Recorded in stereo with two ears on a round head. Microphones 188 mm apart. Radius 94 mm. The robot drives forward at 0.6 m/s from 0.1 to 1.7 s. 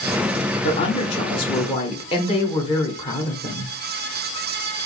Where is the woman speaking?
25° left (ahead or behind), 1.1 m.